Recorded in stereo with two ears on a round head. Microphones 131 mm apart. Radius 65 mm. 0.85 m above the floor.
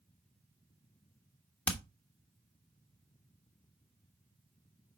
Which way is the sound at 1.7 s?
10° left (ahead or behind).